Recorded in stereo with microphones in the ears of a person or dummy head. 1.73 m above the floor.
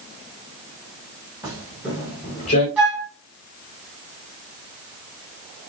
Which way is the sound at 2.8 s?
5° right (ahead or behind).